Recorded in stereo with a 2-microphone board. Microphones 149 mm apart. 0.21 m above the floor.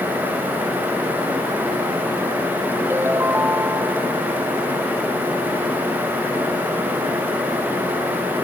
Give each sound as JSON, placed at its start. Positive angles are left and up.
{"t": 2.9, "sound": "a ringtone", "side_deg": -15}